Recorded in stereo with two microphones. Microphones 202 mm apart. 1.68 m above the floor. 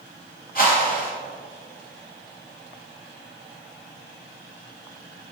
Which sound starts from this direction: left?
A whoosh, at 0.6 s.